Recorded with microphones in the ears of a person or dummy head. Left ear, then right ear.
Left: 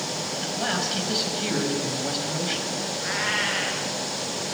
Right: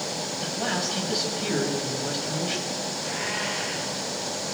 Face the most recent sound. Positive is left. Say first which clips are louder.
# left 6 dB
turn(degrees=75)  # may be behind; listen again after turning